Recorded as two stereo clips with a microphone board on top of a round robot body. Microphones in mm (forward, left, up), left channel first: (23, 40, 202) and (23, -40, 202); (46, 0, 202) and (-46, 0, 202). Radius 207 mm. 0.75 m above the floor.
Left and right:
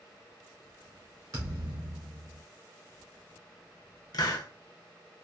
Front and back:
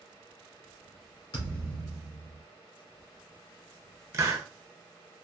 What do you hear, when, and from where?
1.3 s a thud: 40° right, 1.0 m
4.1 s a hiss: 120° left, 0.6 m